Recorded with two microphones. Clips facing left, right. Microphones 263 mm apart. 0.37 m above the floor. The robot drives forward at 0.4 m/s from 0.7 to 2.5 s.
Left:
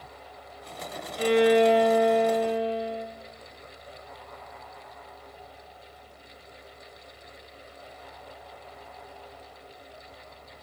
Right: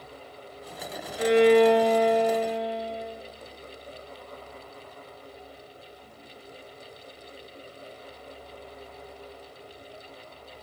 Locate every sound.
1.2 s a violin: 35° left (ahead or behind), 0.7 m; by 3.0 s 20° left (ahead or behind), 1.2 m